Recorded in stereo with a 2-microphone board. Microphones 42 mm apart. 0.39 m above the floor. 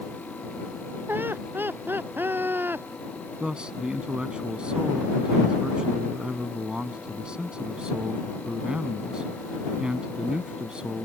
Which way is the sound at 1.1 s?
65° right (ahead or behind).